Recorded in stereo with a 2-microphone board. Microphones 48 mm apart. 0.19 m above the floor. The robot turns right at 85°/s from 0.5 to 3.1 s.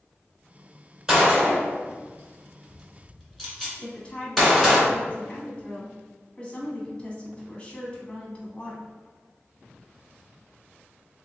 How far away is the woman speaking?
About 1.1 m.